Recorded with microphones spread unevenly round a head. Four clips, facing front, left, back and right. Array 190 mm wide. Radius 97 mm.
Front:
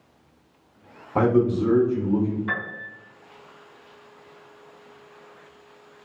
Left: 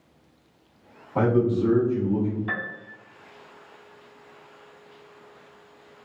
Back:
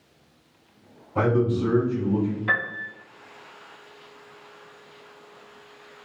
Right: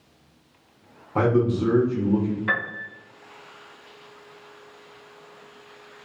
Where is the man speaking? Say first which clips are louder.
Even, front 3 dB; 35° right, 0.9 m; by 2.4 s 115° right, 1.3 m.